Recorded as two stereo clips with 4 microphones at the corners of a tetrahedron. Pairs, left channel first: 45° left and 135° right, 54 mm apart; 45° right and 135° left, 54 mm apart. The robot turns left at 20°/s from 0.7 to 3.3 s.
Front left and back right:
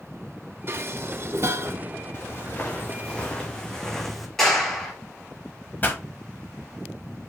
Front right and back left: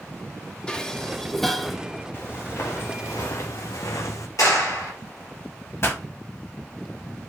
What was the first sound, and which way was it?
Dishes clattering, 115° right.